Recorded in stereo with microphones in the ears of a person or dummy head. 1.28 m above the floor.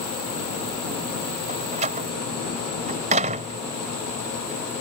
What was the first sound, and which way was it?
A door slam, 35° right (ahead or behind).